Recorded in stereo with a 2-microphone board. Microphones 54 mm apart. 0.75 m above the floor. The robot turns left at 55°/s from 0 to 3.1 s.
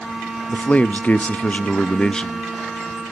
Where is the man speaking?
125° left, 0.5 m; by 2.4 s 20° left, 0.5 m.